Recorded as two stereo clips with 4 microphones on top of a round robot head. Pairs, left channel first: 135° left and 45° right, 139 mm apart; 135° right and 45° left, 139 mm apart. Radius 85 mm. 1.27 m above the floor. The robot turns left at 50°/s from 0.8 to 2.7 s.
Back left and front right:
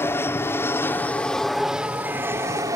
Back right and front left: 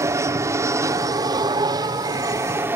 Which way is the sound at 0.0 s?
85° left.